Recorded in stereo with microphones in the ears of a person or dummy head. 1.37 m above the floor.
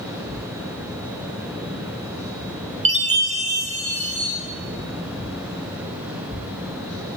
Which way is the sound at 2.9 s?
35° right (ahead or behind).